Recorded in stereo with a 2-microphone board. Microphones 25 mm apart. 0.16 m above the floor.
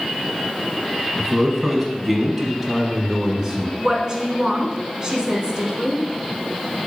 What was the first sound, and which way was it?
A man speaking, centre (ahead or behind).